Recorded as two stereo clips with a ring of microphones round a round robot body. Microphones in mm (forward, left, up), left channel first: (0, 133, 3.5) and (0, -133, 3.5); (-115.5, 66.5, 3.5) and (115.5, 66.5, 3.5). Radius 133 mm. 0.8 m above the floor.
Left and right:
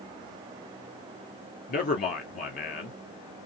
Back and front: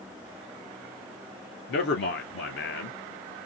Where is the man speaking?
150° left, 2 m.